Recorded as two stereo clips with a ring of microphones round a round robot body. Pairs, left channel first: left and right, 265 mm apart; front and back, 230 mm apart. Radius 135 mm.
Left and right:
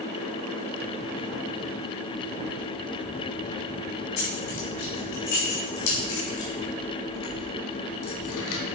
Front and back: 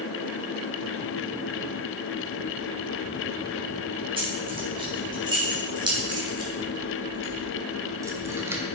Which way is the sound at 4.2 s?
110° left.